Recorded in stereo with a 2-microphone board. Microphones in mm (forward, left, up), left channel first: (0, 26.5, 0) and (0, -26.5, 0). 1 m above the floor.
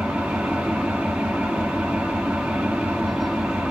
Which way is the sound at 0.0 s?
20° right (ahead or behind).